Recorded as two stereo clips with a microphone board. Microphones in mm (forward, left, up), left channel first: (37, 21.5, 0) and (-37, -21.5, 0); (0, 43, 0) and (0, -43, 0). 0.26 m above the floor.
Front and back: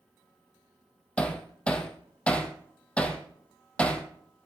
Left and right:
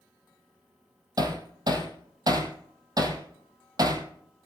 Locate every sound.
1.2 s hammering: 45° right, 2.5 m